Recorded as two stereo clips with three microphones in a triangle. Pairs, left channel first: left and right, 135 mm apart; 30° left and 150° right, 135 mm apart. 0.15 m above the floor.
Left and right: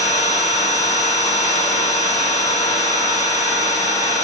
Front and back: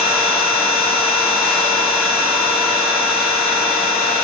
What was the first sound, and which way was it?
An engine running, 120° left.